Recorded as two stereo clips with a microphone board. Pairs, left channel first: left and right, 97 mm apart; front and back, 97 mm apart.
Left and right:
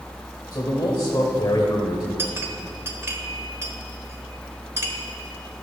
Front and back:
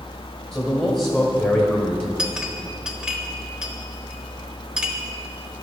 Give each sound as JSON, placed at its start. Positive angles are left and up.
{"t": 0.5, "sound": "a man speaking", "azimuth_deg": 60, "distance_m": 1.6}
{"t": 2.2, "sound": "a clink", "azimuth_deg": -110, "distance_m": 0.7}